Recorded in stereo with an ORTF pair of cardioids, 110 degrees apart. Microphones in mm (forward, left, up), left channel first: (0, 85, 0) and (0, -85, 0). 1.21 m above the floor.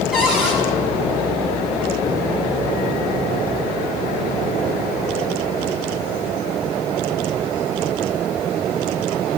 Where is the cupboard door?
5° right, 4.5 m.